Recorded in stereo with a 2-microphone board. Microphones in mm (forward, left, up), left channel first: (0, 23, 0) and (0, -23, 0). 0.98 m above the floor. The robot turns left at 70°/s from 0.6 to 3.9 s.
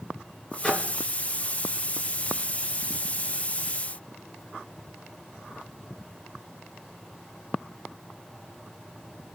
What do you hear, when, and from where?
0.6 s a microwave: 20° left (ahead or behind), 2.0 m; by 0.9 s centre (ahead or behind), 2.0 m